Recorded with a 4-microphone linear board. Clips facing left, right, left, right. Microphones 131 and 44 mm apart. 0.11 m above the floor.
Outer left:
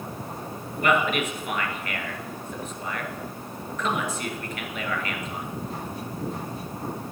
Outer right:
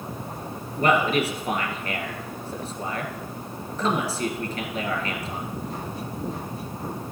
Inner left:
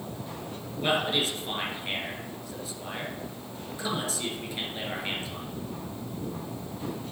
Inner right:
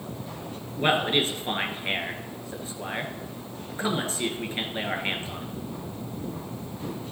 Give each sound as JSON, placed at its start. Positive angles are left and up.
{"t": 0.8, "sound": "a man speaking", "side_deg": -35, "distance_m": 1.4}